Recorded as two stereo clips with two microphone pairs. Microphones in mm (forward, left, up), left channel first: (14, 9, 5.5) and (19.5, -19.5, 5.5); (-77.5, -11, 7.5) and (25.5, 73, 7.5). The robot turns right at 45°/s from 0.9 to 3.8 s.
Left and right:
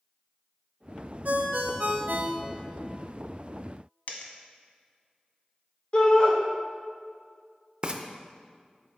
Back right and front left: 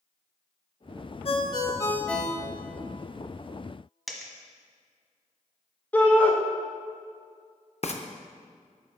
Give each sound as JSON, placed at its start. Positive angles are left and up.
{"t": 1.2, "sound": "a ringtone", "azimuth_deg": -100, "distance_m": 0.7}
{"t": 4.1, "sound": "a dropped coin", "azimuth_deg": 130, "distance_m": 1.0}
{"t": 5.9, "sound": "a shout", "azimuth_deg": 145, "distance_m": 1.2}
{"t": 7.8, "sound": "frying", "azimuth_deg": -135, "distance_m": 0.5}